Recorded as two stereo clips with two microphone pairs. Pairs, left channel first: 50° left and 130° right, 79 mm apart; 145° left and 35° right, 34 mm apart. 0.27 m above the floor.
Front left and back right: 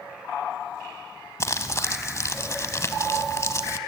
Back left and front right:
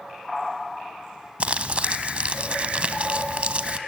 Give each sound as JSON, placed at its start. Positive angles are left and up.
{"t": 1.4, "sound": "crumpling", "azimuth_deg": 10, "distance_m": 0.8}